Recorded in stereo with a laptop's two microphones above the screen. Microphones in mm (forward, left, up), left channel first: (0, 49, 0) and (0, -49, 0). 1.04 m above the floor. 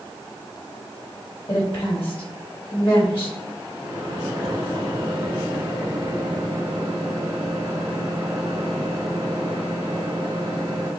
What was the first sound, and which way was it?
A woman speaking, 65° left (ahead or behind).